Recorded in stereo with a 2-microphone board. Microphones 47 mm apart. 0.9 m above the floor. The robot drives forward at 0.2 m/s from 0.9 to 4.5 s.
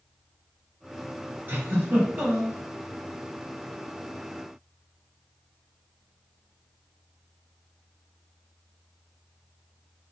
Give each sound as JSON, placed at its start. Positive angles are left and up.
{"t": 1.5, "sound": "a giggle", "side_deg": -50, "distance_m": 1.6}